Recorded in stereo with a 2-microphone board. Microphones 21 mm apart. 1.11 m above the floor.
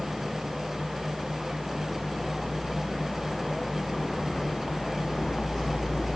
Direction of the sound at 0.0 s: Centre (ahead or behind).